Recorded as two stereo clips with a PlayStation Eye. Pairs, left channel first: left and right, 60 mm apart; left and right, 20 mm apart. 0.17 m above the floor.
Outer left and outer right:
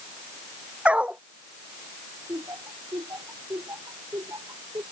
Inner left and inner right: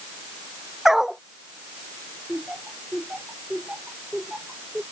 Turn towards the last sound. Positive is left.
turn(degrees=-75)  # may be behind; listen again after turning